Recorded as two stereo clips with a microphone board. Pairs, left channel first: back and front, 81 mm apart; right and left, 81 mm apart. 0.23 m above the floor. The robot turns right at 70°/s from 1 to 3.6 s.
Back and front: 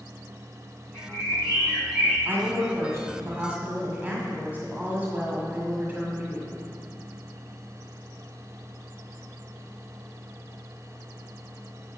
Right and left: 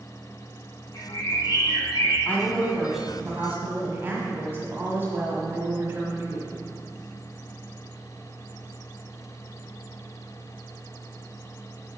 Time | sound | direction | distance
0.9 | a bird | 155° right | 3.5 m
2.2 | a woman speaking | 45° right | 1.7 m